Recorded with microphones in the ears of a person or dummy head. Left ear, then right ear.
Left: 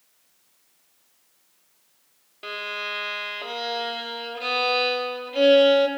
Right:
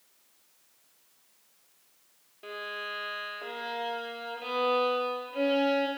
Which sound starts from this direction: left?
A violin, at 2.4 s.